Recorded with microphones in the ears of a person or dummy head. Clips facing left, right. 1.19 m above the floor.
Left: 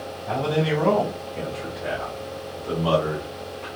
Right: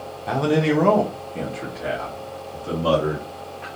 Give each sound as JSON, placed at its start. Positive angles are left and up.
{"t": 0.3, "sound": "a man speaking", "side_deg": -80, "distance_m": 0.8}